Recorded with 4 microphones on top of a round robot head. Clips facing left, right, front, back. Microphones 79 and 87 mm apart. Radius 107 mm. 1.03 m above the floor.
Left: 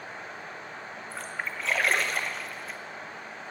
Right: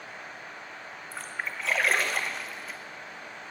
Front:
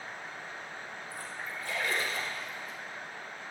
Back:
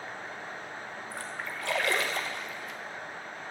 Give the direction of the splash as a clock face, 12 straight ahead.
6 o'clock.